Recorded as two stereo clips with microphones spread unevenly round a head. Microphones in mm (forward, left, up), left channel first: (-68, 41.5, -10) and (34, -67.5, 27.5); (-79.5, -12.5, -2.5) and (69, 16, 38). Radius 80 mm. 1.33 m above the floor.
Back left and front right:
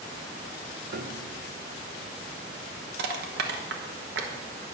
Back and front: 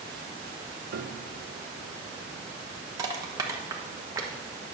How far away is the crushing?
About 1.2 m.